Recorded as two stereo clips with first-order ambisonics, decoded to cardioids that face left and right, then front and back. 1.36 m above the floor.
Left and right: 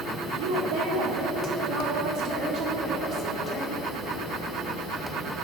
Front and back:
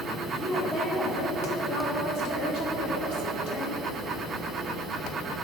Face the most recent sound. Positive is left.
turn(degrees=-10)